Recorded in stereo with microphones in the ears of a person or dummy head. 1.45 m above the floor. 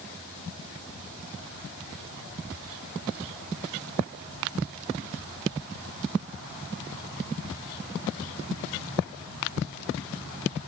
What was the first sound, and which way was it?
Only background noise.